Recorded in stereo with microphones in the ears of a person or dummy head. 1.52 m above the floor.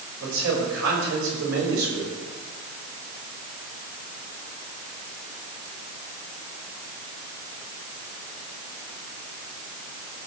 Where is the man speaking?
75° right (ahead or behind), 6 m.